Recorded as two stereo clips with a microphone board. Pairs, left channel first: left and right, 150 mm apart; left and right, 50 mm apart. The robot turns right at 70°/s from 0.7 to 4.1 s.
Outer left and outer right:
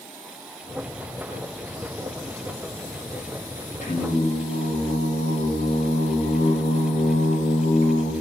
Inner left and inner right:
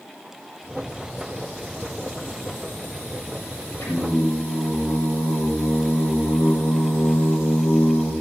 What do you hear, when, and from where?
3.8 s singing: 60° left (ahead or behind), 9 m; by 8.1 s 35° left (ahead or behind), 9 m